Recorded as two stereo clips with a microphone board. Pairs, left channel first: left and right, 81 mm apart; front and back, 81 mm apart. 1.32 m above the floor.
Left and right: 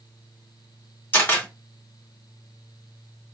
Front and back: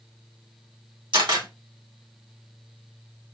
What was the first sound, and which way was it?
A camera shutter, 155° left.